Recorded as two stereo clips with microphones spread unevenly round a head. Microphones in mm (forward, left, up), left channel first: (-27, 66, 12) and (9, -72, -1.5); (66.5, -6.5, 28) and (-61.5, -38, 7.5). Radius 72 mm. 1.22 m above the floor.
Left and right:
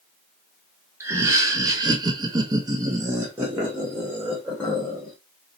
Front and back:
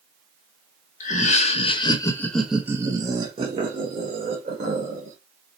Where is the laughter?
10° right, 0.9 m; by 5.2 s 155° right, 1.6 m.